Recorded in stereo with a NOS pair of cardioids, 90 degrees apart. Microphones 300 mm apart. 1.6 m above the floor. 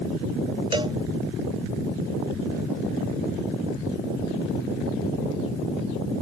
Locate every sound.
0.7 s a cowbell: 15° right